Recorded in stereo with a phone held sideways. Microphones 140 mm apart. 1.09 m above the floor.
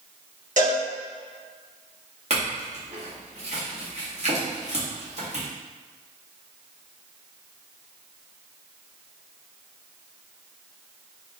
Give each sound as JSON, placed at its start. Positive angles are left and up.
{"t": 0.6, "sound": "a cowbell", "side_deg": -60, "distance_m": 1.3}
{"t": 2.3, "sound": "a clink", "side_deg": -50, "distance_m": 1.3}